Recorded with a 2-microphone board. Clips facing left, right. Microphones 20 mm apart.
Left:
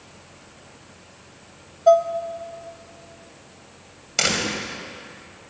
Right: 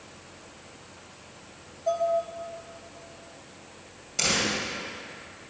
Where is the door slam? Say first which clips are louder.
Left 3 dB; 60° left (ahead or behind), 2.5 m.